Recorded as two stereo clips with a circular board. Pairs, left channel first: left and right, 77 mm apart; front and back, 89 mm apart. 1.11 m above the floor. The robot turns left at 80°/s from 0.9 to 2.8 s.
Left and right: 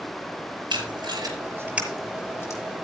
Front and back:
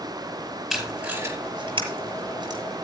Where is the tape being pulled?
95° right, 5.5 m; by 2.6 s 130° left, 5.5 m.